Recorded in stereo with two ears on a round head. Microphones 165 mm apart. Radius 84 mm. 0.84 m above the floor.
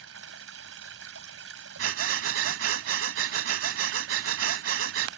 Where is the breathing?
80° right.